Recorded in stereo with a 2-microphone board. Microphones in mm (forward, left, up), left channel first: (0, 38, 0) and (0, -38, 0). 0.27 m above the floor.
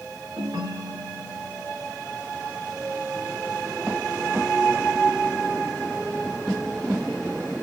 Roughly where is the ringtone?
Right.